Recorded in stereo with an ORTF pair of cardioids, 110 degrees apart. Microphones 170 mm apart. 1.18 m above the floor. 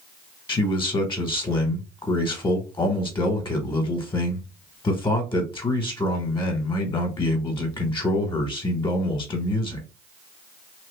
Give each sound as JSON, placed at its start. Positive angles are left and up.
{"t": 0.5, "sound": "a man speaking", "azimuth_deg": 15, "distance_m": 1.3}